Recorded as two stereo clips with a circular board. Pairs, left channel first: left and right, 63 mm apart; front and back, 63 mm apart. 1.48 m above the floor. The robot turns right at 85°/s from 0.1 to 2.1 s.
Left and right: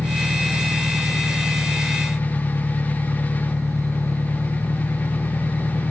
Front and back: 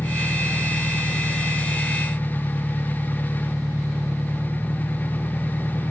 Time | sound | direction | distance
0.0 | an engine running | 75° right | ?